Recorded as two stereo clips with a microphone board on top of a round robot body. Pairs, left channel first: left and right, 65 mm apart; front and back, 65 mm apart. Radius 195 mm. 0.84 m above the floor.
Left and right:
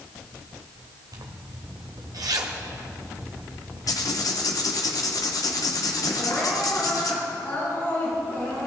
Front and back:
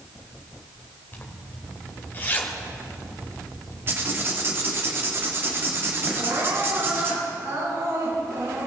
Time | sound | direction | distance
1.1 | a zipper | 65° right | 1.3 m
3.9 | writing | 125° left | 1.5 m
6.1 | crying | 145° left | 5.5 m